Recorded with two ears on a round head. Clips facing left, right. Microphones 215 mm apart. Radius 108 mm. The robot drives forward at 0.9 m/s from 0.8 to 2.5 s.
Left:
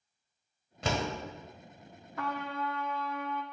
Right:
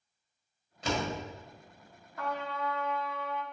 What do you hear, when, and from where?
0.8 s a door slam: 60° left (ahead or behind), 1.9 m; by 1.1 s 65° left (ahead or behind), 1.8 m
2.2 s a trumpet: 55° left (ahead or behind), 0.7 m; by 3.4 s 45° left (ahead or behind), 0.9 m